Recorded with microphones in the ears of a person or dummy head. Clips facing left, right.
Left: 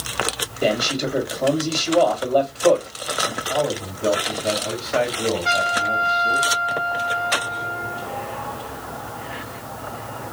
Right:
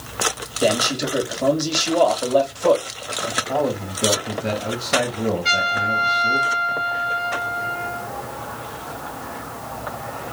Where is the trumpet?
50° right (ahead or behind), 3 m.